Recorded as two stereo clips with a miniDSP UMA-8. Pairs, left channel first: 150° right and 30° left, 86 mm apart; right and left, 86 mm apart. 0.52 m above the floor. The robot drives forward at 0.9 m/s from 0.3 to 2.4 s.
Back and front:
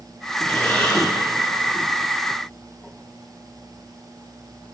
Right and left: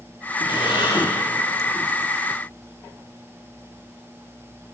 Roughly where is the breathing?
Right.